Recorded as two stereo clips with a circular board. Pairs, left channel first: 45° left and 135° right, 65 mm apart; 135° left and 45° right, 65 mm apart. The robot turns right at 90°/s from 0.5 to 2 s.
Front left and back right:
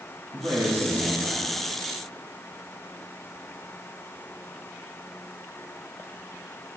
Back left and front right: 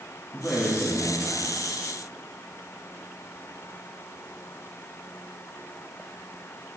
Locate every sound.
0.3 s a man speaking: 155° right, 1.7 m; by 1.6 s 55° right, 1.7 m